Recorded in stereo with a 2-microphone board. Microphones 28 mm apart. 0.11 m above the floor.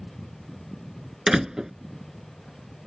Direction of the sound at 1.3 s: 20° right (ahead or behind).